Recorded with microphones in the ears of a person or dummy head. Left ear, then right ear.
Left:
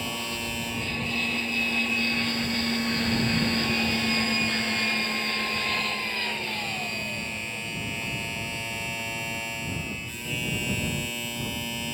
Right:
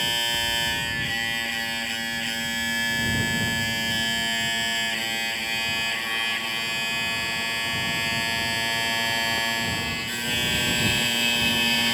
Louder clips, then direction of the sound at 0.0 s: Right 7 dB; 40° right (ahead or behind).